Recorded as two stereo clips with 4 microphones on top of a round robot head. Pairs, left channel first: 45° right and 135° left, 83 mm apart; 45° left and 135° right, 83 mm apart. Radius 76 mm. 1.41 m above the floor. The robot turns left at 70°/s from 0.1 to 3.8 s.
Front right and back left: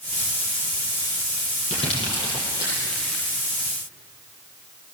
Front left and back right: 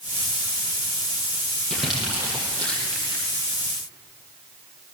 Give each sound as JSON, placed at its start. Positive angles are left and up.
{"t": 1.7, "sound": "crumpling", "azimuth_deg": -35, "distance_m": 7.5}